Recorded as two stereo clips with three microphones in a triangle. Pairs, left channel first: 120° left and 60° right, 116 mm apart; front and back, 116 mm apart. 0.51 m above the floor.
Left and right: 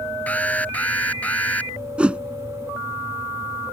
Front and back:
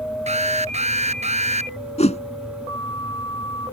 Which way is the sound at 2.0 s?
20° left.